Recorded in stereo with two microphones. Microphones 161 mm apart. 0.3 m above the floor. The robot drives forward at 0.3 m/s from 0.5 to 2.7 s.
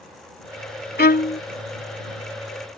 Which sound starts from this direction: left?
A violin, at 1.0 s.